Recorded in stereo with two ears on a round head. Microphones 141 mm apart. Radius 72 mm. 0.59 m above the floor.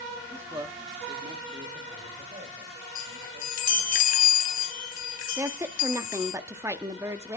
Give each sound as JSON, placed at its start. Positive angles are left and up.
{"t": 0.3, "sound": "a man speaking", "side_deg": -10, "distance_m": 0.9}
{"t": 3.0, "sound": "a chime", "side_deg": 50, "distance_m": 0.9}
{"t": 5.4, "sound": "a woman speaking", "side_deg": -15, "distance_m": 0.6}